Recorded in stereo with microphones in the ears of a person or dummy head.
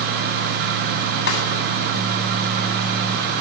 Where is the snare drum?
65° left (ahead or behind), 10 m.